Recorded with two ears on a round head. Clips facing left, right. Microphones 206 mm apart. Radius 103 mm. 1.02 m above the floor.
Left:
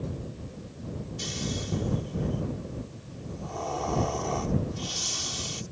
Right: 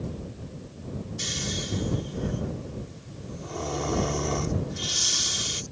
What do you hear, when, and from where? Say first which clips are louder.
1.2 s snoring: even; 25° right (ahead or behind)